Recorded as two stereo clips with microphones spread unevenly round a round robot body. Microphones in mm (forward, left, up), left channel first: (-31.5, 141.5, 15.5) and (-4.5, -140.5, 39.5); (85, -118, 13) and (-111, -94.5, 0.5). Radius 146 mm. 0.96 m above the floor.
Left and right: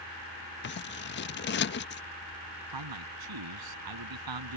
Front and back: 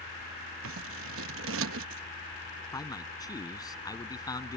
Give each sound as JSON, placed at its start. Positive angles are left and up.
{"t": 0.6, "sound": "scissors", "azimuth_deg": 150}
{"t": 2.7, "sound": "a man speaking", "azimuth_deg": -80}